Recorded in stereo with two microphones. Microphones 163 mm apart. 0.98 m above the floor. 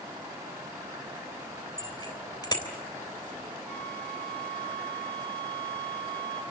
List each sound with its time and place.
1.8 s a bicycle bell: 25° left (ahead or behind), 3.5 m
3.7 s a flute: 10° left (ahead or behind), 1.1 m